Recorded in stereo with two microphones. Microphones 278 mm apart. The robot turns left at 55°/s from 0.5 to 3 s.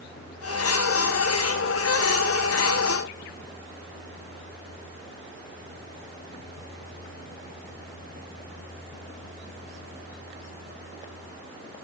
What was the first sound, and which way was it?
Only background noise.